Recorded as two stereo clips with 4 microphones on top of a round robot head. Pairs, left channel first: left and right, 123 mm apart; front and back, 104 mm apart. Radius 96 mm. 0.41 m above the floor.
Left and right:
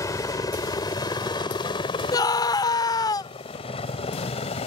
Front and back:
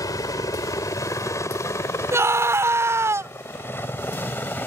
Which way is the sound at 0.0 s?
40° left.